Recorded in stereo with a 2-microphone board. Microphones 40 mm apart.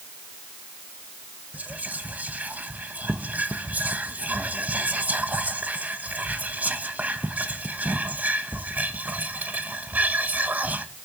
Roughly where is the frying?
I don't hear frying.